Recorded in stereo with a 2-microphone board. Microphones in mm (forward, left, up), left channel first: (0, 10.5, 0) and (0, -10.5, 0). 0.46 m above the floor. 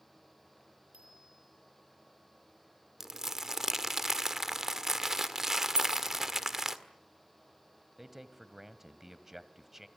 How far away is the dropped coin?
About 3.5 m.